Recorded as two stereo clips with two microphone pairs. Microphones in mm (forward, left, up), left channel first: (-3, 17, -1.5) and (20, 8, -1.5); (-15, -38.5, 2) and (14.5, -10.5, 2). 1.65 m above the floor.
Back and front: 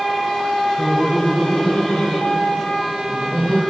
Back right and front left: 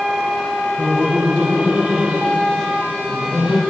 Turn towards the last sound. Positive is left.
turn(degrees=110)